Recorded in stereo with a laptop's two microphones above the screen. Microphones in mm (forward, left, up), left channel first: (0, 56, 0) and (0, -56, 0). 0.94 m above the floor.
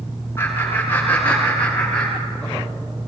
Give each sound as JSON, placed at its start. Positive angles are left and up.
{"t": 0.4, "sound": "laughter", "side_deg": 25, "distance_m": 9.5}